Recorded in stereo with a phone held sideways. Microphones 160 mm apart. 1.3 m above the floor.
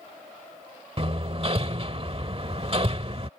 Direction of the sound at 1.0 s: 40° right (ahead or behind).